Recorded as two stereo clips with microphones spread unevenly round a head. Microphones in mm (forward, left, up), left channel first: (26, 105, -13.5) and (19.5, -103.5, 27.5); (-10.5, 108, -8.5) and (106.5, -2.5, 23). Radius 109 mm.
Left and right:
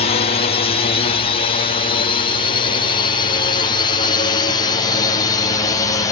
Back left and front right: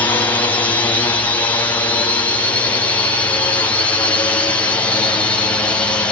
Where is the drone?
80° left; by 6.1 s 90° left.